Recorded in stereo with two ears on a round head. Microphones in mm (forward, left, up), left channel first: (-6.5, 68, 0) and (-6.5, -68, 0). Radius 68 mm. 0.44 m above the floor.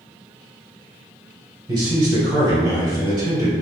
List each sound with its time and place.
1.7 s a man speaking: 25° right (ahead or behind), 1.5 m